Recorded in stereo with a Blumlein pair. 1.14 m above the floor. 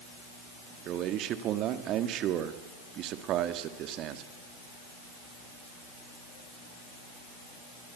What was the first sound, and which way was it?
A man speaking, 35° right.